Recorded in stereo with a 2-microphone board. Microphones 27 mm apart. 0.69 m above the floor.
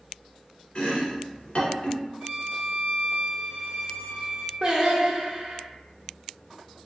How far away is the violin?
About 1.1 m.